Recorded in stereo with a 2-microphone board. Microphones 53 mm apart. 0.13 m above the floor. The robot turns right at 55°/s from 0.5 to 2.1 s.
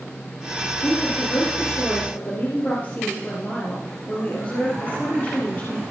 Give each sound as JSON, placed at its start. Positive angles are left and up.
{"t": 0.8, "sound": "a woman speaking", "azimuth_deg": 65, "distance_m": 3.0}